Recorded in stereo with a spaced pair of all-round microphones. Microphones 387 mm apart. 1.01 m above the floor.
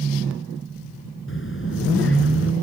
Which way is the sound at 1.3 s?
30° left (ahead or behind).